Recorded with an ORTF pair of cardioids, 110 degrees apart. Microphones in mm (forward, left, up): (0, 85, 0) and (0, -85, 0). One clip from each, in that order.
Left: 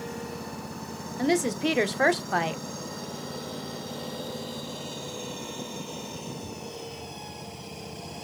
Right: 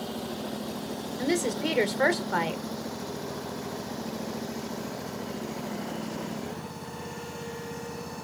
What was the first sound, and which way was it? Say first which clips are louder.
A woman speaking: left 3 dB; 10° left.